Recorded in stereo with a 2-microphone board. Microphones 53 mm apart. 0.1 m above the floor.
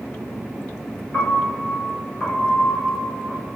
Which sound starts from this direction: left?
A piano, at 1.1 s.